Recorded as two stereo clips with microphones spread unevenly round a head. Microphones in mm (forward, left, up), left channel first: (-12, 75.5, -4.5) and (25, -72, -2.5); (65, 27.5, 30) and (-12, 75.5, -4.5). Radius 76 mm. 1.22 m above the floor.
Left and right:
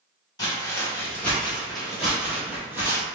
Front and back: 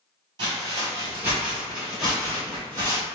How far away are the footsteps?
About 1.3 m.